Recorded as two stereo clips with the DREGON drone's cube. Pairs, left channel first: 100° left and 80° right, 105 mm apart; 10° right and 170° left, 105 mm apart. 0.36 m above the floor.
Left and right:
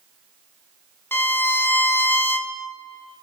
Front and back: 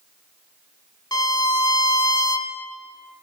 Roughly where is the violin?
Ahead left.